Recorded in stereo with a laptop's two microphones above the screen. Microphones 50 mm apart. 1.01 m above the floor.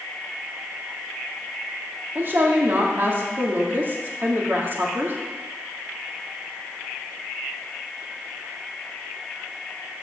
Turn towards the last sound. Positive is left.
turn(degrees=-45)  # may be behind; listen again after turning